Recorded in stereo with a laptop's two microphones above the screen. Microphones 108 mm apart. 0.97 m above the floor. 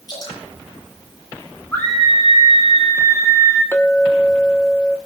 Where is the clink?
25° left (ahead or behind), 1.3 m.